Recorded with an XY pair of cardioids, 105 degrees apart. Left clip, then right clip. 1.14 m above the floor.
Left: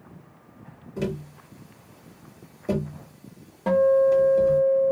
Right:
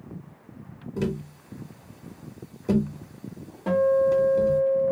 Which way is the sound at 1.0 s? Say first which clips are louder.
Even; 15° right.